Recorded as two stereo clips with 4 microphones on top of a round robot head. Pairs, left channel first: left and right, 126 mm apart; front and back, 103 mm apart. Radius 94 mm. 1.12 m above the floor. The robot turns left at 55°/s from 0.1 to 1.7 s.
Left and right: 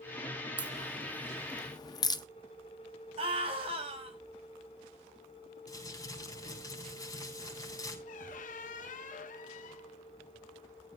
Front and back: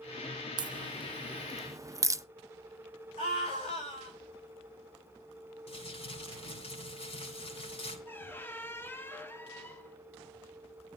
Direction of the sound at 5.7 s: 25° left.